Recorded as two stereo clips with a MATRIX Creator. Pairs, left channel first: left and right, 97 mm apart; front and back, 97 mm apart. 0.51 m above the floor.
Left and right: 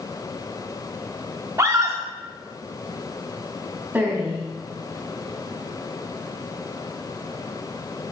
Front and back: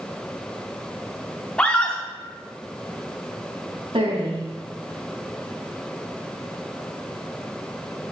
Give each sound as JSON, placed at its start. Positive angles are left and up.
{"t": 1.6, "sound": "a scream", "azimuth_deg": -70, "distance_m": 0.8}
{"t": 3.9, "sound": "a woman speaking", "azimuth_deg": -160, "distance_m": 3.5}